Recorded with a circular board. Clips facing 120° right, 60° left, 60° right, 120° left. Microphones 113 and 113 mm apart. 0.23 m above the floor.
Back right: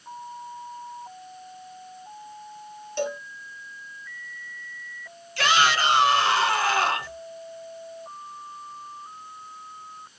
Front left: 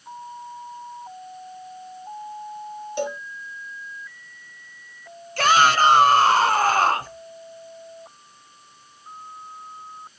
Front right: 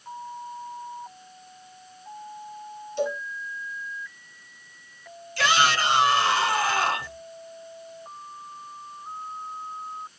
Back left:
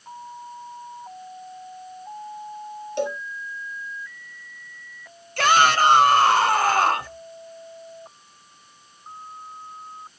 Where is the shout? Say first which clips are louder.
Front left 5 dB, back left 5 dB; 95° left, 2 m.